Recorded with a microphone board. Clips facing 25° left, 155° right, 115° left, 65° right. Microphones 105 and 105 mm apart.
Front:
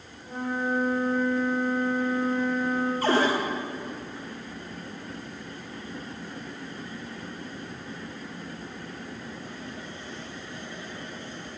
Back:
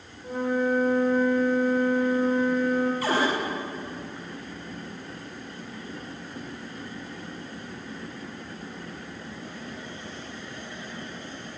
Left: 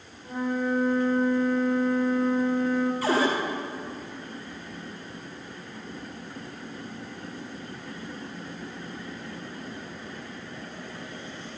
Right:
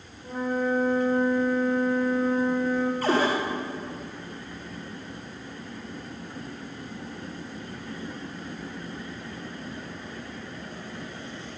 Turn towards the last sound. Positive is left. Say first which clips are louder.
# front 2 dB, right 1 dB
turn(degrees=-25)